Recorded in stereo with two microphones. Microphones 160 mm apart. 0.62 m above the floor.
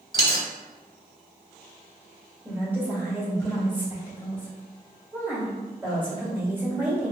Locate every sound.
0.1 s a dropped coin: 30° left (ahead or behind), 1.3 m
2.5 s a woman speaking: 10° right (ahead or behind), 1.9 m